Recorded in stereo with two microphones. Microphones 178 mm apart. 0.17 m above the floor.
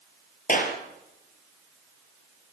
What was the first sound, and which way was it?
A clap, 50° left (ahead or behind).